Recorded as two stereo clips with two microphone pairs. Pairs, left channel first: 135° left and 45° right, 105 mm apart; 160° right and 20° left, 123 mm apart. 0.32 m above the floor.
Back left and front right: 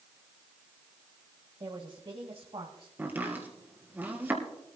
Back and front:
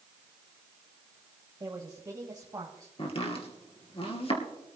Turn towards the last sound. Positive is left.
turn(degrees=-120)